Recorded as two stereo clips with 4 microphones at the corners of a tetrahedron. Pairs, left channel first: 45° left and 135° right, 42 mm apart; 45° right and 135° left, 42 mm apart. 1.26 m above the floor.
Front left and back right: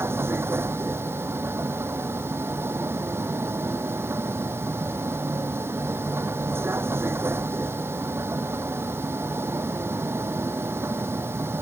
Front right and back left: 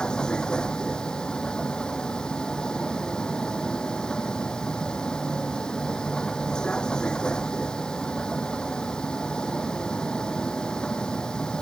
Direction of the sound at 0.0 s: 115° right.